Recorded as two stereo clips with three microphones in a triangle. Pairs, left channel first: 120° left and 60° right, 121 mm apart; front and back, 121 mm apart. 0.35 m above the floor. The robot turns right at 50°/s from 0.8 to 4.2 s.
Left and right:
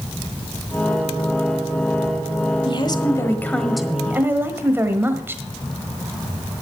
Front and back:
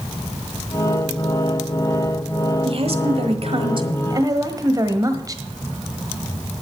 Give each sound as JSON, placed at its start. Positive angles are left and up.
{"t": 2.6, "sound": "a woman speaking", "azimuth_deg": 155, "distance_m": 1.4}